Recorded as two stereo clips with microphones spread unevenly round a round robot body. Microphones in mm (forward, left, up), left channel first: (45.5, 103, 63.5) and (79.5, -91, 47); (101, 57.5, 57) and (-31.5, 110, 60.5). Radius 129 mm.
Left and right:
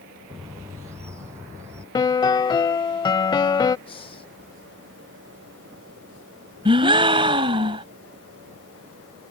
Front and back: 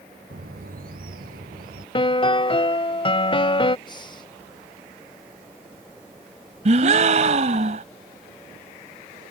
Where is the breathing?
35° left.